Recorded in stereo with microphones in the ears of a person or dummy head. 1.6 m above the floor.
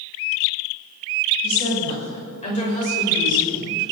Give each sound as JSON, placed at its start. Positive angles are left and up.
{"t": 1.4, "sound": "a woman speaking", "side_deg": 35, "distance_m": 7.5}